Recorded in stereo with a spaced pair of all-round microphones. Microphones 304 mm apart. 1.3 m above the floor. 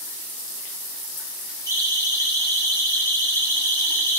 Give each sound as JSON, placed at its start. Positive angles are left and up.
{"t": 1.7, "sound": "a siren", "side_deg": 10, "distance_m": 9.0}